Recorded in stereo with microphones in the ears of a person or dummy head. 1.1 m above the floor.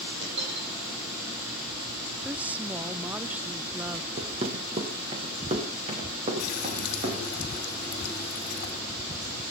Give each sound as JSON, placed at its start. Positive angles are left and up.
{"t": 0.2, "sound": "a dropped coin", "side_deg": -75, "distance_m": 8.5}
{"t": 2.2, "sound": "a woman speaking", "side_deg": -5, "distance_m": 0.5}
{"t": 4.2, "sound": "running footsteps", "side_deg": -30, "distance_m": 2.0}
{"t": 6.4, "sound": "a running tap", "side_deg": 60, "distance_m": 2.0}